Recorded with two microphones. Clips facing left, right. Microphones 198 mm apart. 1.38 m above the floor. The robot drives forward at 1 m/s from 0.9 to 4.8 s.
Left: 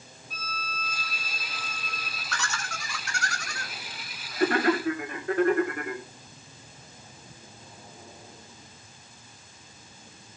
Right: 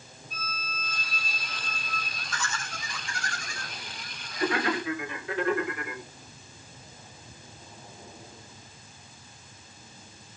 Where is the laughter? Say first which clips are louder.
Left 1 dB; 75° left (ahead or behind), 2.5 m; by 6.0 s 50° left (ahead or behind), 3 m.